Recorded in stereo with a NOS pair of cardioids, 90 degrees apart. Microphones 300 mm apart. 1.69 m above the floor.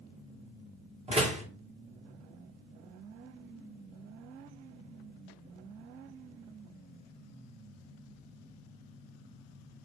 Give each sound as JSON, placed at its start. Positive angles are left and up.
{"t": 1.1, "sound": "a door slam", "azimuth_deg": -20, "distance_m": 1.9}